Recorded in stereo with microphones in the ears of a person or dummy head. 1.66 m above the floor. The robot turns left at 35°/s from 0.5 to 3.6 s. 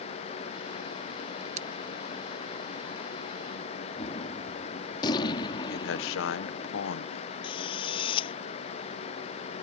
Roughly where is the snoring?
No snoring in this recording.